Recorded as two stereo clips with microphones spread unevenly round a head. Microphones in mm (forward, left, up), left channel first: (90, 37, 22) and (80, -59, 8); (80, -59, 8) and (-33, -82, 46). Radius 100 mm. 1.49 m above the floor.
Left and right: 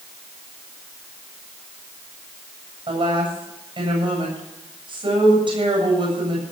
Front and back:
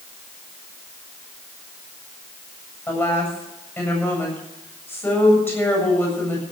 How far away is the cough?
No cough in this recording.